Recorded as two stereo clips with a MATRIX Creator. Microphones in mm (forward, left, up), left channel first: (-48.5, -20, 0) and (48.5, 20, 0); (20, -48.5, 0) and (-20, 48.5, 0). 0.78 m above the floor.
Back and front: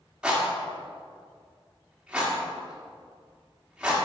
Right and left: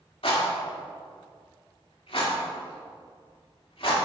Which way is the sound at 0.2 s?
60° right.